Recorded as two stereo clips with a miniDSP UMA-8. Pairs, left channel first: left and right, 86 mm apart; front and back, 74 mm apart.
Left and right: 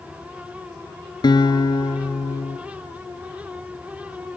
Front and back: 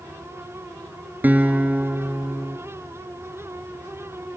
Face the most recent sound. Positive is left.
turn(degrees=115)